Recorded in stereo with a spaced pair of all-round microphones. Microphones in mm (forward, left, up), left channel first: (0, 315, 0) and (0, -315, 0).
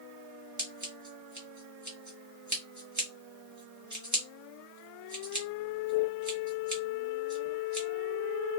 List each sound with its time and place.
0.6 s scissors: 25° right (ahead or behind), 1.5 m